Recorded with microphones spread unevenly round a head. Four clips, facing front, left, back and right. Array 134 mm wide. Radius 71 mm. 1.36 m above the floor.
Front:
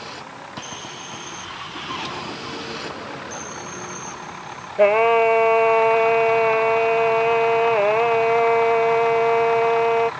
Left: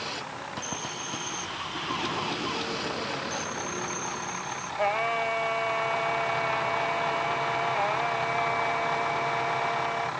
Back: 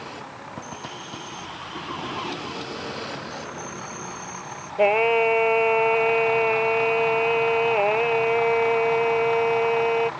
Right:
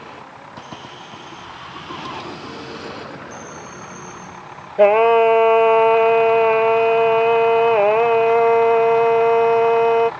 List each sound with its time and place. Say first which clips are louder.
4.8 s singing: right 16 dB, front 4 dB; 75° right